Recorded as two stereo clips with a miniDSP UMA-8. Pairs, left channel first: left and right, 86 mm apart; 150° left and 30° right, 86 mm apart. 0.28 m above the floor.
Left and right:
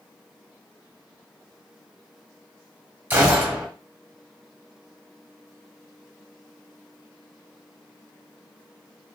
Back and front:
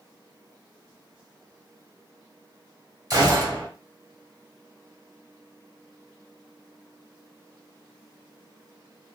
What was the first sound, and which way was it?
A gunshot, 35° right.